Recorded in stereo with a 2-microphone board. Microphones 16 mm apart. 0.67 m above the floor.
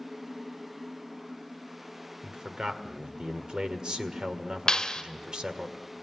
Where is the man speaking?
70° right (ahead or behind), 1.7 m.